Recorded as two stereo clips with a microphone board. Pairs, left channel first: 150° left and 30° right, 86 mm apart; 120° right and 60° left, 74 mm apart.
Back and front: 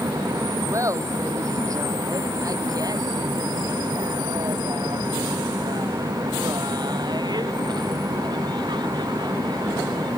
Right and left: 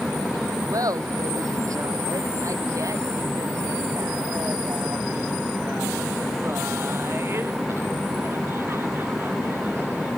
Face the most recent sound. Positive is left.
turn(degrees=0)